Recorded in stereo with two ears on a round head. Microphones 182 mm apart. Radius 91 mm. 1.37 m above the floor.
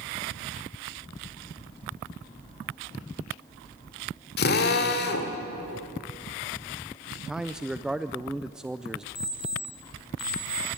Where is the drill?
55° left (ahead or behind), 2.0 m.